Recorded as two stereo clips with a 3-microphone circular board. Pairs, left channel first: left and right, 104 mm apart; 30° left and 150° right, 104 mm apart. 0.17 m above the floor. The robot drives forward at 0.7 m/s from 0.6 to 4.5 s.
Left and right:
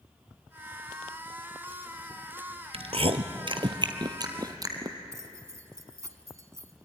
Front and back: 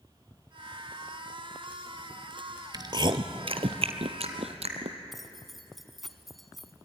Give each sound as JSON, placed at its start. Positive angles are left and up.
{"t": 2.7, "sound": "chewing", "azimuth_deg": -100, "distance_m": 1.1}
{"t": 5.1, "sound": "keys jangling", "azimuth_deg": -60, "distance_m": 1.2}